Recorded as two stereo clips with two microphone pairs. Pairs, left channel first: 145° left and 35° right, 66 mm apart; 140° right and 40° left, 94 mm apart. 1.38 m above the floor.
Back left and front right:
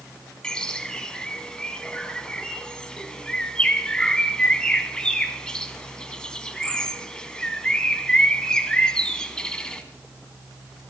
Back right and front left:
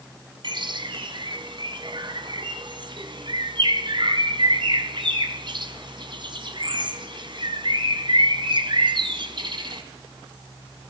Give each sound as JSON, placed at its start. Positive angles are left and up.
{"t": 0.4, "sound": "a bird", "azimuth_deg": 65, "distance_m": 2.5}